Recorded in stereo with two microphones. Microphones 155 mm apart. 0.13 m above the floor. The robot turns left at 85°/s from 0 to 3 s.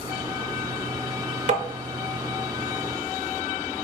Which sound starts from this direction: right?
Tapping, at 1.5 s.